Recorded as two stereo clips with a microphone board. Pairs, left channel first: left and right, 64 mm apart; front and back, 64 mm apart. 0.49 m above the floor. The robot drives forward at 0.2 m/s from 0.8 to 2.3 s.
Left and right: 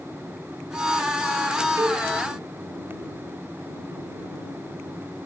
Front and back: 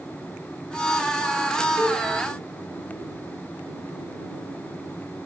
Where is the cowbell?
65° right, 1.0 m; by 2.0 s 70° right, 1.0 m.